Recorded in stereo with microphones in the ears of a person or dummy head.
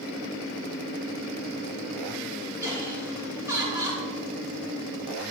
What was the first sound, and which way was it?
Laughter, 10° right (ahead or behind).